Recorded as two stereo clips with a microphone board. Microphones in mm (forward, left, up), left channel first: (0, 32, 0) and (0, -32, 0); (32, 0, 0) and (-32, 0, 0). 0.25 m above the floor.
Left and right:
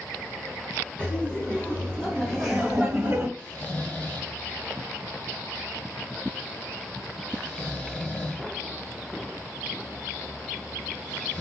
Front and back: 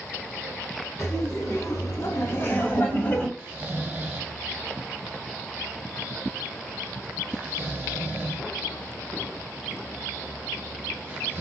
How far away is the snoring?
About 0.9 m.